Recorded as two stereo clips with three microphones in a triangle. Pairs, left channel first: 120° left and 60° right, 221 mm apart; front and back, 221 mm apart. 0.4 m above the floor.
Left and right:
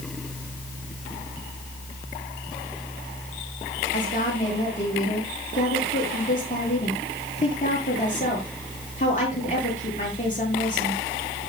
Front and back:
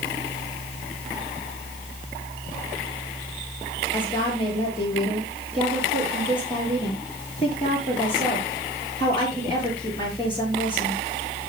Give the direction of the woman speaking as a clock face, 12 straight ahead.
10 o'clock.